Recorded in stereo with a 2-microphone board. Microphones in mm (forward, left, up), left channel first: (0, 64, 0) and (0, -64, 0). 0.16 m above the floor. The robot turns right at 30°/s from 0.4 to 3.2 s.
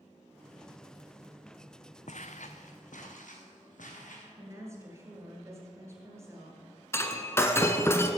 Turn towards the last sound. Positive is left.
turn(degrees=20)  # may be behind; listen again after turning